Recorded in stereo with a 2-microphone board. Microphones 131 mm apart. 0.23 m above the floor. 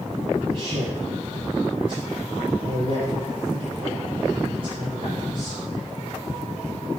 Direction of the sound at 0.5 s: 45° right (ahead or behind).